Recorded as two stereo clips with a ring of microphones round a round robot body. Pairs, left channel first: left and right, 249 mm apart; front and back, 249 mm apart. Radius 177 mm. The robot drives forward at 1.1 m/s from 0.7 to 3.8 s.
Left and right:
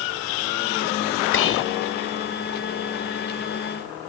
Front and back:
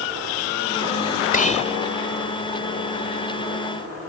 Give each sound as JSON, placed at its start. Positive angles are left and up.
{"t": 1.3, "sound": "whispering", "azimuth_deg": 55}